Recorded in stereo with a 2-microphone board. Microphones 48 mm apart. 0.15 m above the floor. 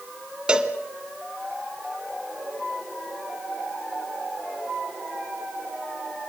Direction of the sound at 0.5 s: 20° right (ahead or behind).